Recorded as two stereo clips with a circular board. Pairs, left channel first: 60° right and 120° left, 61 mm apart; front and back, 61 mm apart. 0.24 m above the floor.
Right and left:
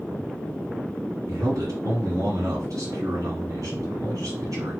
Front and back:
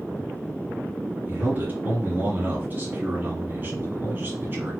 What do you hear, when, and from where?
1.3 s a man speaking: 125° left, 2.5 m